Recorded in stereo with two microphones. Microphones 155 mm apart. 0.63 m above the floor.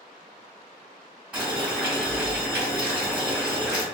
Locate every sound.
1.3 s boiling: 10° right (ahead or behind), 1.8 m